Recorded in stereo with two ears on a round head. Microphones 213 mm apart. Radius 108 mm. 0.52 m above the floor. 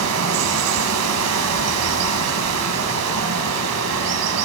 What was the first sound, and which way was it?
Running water, 75° right (ahead or behind).